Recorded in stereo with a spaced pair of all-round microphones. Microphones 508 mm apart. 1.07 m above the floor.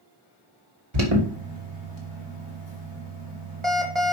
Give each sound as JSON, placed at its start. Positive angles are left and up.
{"t": 0.9, "sound": "an alarm", "side_deg": -60, "distance_m": 2.0}